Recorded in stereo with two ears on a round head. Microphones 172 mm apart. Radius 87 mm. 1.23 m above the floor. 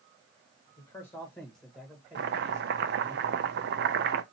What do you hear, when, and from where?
0.8 s a man speaking: 20° left (ahead or behind), 1.5 m; by 3.1 s 30° right (ahead or behind), 1.9 m
2.1 s chopping: 60° right (ahead or behind), 0.6 m